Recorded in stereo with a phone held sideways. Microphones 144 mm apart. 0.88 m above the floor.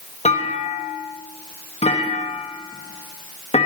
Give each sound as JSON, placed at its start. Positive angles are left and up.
{"t": 0.2, "sound": "a clunk", "side_deg": 50, "distance_m": 1.4}